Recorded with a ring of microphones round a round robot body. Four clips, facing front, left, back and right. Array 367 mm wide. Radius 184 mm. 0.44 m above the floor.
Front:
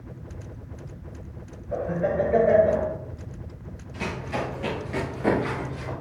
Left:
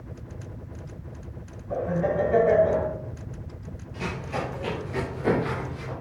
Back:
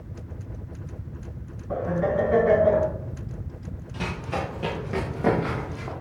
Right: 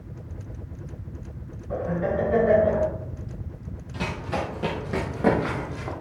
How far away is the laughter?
About 4.5 m.